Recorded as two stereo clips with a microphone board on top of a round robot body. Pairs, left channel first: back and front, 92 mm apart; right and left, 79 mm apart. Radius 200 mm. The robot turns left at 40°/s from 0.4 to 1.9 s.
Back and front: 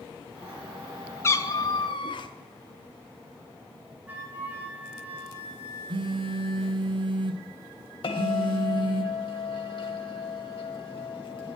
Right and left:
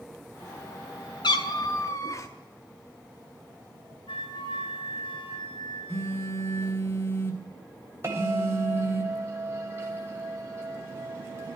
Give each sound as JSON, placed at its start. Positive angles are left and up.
{"t": 1.2, "sound": "a cat meowing", "azimuth_deg": -115, "distance_m": 0.7}
{"t": 4.1, "sound": "a flute", "azimuth_deg": -75, "distance_m": 4.5}
{"t": 5.9, "sound": "a phone buzzing", "azimuth_deg": -30, "distance_m": 1.4}
{"t": 8.0, "sound": "a bell", "azimuth_deg": 150, "distance_m": 1.5}